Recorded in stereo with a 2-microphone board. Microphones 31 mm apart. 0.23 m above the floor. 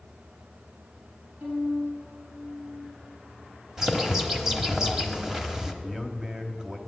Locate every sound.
1.4 s a violin: 50° right (ahead or behind), 4.5 m
3.8 s a bird: 10° right (ahead or behind), 1.2 m
5.8 s a man speaking: 20° right (ahead or behind), 1.0 m